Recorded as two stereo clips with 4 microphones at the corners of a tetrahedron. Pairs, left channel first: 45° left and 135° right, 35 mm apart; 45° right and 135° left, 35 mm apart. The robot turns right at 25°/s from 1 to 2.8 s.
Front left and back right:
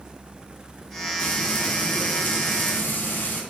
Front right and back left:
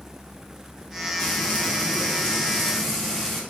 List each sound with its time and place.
1.2 s frying: 5° right, 1.1 m; by 3.4 s 35° left, 1.1 m